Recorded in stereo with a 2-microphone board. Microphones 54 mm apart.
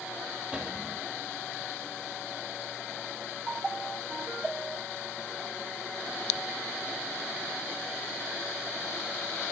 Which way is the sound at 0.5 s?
25° right (ahead or behind).